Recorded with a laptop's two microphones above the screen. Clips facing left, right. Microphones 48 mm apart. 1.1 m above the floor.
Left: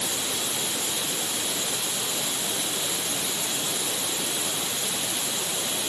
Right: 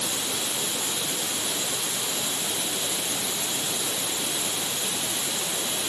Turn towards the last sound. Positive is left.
No sound to turn to.